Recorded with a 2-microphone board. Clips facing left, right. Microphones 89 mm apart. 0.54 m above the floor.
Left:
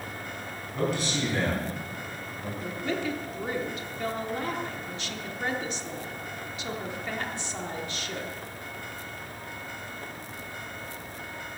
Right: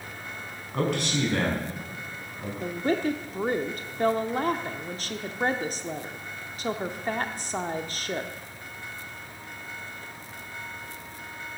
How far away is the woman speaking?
About 0.9 m.